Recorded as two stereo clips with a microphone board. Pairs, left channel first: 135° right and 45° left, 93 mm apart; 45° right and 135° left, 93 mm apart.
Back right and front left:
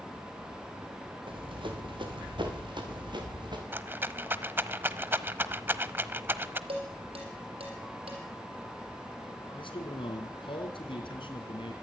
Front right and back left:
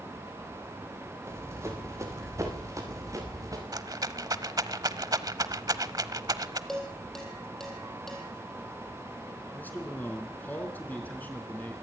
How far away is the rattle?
About 0.9 m.